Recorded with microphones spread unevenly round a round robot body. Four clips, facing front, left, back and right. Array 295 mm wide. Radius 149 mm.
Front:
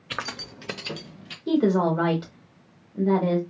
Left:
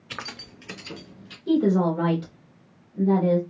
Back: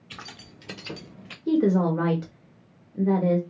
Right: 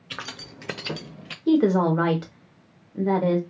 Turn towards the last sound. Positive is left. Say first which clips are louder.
# right 2 dB, even
turn(degrees=-115)